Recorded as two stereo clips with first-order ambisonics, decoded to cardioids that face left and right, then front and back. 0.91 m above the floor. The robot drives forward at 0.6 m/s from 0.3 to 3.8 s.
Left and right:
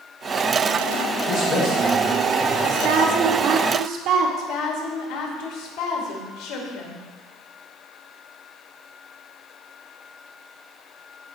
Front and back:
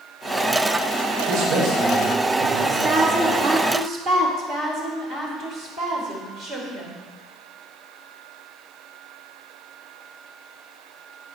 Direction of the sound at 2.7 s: 115° right.